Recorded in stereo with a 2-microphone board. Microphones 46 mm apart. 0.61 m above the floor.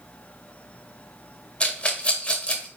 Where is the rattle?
25° left (ahead or behind), 0.5 m.